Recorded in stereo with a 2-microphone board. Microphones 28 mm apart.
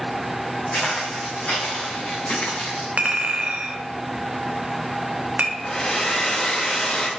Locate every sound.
0.7 s footsteps: 50° left (ahead or behind), 2 m; by 2.9 s 60° left (ahead or behind), 3 m
3.0 s a clink: 50° right (ahead or behind), 0.9 m
5.6 s a hair dryer: 25° left (ahead or behind), 1.0 m